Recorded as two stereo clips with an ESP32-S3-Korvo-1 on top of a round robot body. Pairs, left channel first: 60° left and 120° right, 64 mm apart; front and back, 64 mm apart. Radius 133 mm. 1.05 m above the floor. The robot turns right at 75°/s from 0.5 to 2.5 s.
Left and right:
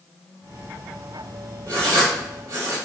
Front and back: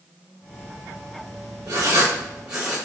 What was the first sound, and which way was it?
Writing, 170° right.